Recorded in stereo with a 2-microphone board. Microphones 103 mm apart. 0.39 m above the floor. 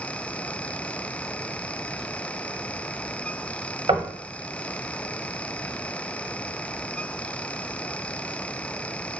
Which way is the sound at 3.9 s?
65° right (ahead or behind).